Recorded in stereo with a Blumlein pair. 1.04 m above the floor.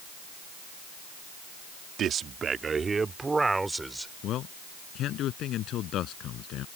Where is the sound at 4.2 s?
35° left.